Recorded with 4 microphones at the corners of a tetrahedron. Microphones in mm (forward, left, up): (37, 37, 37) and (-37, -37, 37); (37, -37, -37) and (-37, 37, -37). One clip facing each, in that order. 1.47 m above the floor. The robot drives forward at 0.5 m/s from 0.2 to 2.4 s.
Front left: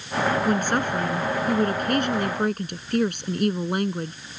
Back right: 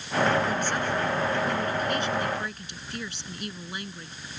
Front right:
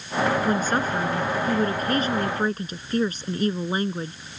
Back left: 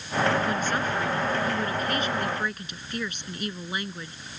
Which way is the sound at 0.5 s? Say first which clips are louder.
Front left 5 dB, front right 4 dB; 10° left.